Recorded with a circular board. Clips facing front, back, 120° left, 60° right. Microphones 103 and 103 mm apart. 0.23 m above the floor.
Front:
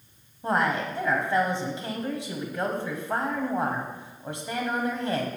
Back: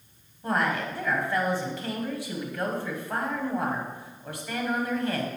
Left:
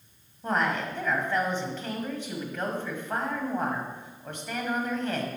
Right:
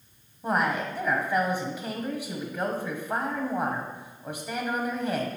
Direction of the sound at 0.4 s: Straight ahead.